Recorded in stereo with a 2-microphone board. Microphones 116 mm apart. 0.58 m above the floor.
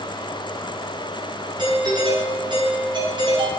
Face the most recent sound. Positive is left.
turn(degrees=-40)  # may be behind; listen again after turning